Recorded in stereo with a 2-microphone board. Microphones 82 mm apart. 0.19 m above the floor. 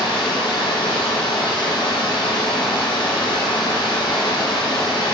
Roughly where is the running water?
Left.